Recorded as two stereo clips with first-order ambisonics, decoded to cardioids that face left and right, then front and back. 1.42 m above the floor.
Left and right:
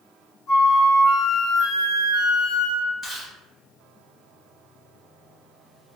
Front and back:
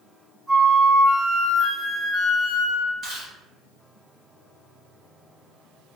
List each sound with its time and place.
0.5 s a flute: 80° left, 1.2 m
3.0 s chewing: 145° left, 1.3 m